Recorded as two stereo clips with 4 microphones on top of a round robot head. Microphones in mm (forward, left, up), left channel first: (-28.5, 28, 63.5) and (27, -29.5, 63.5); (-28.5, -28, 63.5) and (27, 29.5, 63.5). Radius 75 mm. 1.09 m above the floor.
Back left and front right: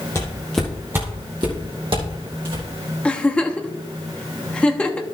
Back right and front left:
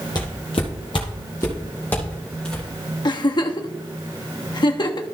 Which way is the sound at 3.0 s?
150° right.